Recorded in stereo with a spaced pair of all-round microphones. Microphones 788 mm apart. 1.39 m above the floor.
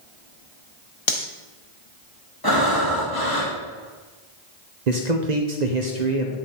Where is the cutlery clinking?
40° left (ahead or behind), 0.8 m.